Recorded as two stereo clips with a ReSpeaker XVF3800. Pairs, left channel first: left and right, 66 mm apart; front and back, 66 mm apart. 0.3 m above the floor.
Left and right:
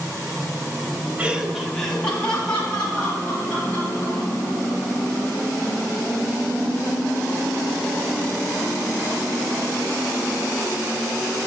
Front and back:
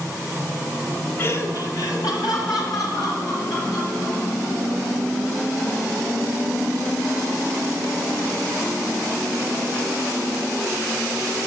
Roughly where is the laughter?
Ahead right.